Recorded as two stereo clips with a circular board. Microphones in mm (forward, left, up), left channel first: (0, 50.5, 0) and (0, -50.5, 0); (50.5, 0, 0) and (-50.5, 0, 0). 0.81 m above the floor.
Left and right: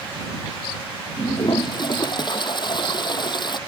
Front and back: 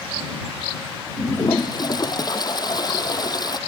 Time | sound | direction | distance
1.2 | a toilet flushing | 50° left | ?